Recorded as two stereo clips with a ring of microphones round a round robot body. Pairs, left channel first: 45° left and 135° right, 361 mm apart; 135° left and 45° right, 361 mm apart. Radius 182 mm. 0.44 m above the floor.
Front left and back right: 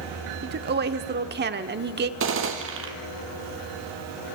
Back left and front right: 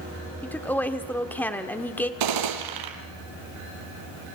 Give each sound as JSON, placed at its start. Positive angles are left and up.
{"t": 0.4, "sound": "a woman speaking", "azimuth_deg": -145, "distance_m": 1.1}
{"t": 2.2, "sound": "a gunshot", "azimuth_deg": -75, "distance_m": 2.5}